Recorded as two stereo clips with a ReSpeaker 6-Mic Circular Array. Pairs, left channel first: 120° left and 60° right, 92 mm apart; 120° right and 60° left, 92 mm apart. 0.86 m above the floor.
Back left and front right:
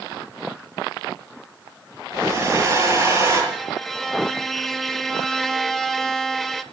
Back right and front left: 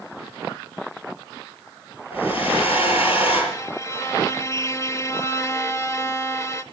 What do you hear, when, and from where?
2.1 s a hair dryer: 120° right, 7.5 m
3.5 s a violin: 155° right, 0.6 m